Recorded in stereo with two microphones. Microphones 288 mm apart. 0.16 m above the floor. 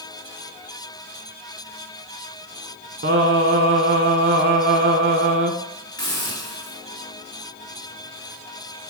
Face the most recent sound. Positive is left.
turn(degrees=15)  # may be behind; listen again after turning